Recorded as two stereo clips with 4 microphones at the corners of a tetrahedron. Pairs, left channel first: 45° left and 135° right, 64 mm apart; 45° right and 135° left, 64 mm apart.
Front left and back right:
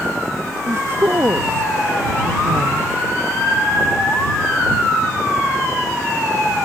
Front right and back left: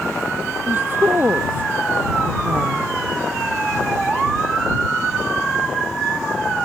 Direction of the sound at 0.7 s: 175° right.